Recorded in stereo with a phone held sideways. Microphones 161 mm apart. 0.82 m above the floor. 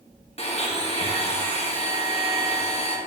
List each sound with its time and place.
0.4 s a blender: 40° left (ahead or behind), 1.1 m